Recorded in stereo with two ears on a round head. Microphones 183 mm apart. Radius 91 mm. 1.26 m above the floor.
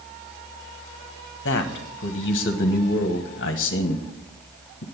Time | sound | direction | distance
1.4 | a man speaking | 45° left (ahead or behind) | 1.3 m